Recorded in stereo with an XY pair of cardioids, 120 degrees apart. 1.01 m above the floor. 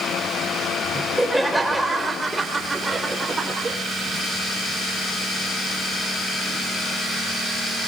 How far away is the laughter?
About 3.5 m.